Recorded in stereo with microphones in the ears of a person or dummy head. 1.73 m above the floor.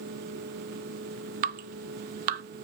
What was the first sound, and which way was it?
Dripping, 45° right (ahead or behind).